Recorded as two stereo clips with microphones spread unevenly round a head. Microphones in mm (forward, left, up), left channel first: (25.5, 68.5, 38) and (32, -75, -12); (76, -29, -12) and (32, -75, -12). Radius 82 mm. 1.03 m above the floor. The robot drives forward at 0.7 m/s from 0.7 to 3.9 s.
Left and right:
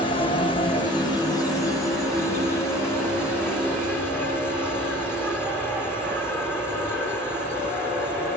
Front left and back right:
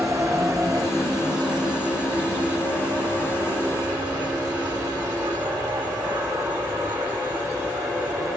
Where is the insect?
160° left; by 8.4 s 175° left.